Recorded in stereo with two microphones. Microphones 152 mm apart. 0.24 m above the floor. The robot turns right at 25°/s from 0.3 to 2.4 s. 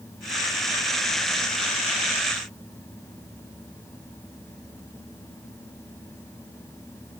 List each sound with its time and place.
Only background noise.